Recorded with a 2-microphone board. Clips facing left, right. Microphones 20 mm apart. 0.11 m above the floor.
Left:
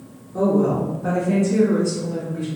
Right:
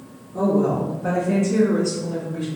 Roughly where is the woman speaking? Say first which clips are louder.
Left 1 dB; left.